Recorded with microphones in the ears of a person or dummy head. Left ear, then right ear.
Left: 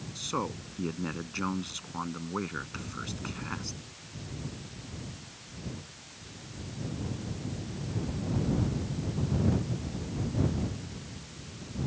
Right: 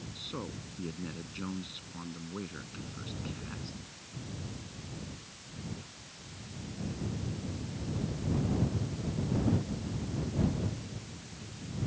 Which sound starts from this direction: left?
A man speaking, at 0.1 s.